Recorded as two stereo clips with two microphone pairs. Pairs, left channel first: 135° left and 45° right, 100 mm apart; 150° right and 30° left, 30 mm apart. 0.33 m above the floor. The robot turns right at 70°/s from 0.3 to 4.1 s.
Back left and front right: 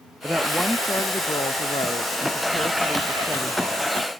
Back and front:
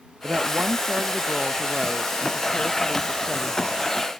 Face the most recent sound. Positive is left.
turn(degrees=-60)